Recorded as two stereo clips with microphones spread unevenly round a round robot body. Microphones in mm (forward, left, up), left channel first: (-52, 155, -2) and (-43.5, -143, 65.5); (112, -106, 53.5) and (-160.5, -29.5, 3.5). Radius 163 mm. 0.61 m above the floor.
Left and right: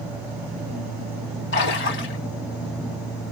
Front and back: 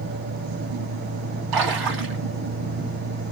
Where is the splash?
145° left, 2.5 m.